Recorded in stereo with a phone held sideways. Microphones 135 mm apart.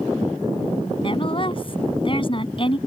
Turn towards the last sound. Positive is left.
turn(degrees=40)  # may be behind; listen again after turning